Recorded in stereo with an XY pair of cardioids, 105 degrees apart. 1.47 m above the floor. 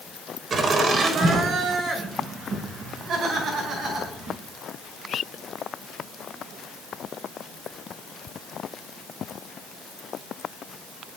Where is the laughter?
45° right, 3 m; by 4.4 s 70° right, 6 m.